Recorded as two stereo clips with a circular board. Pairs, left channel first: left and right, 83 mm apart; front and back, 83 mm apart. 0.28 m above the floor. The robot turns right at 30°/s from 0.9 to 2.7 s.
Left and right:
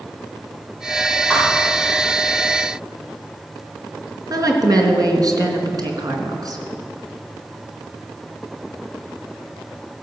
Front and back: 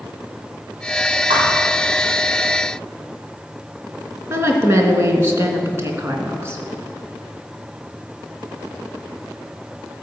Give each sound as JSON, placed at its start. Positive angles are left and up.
{"t": 1.3, "sound": "a thud", "azimuth_deg": 165, "distance_m": 5.5}
{"t": 4.3, "sound": "a woman speaking", "azimuth_deg": -125, "distance_m": 3.0}